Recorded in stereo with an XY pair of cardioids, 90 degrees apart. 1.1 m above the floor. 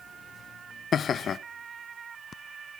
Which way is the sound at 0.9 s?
55° left.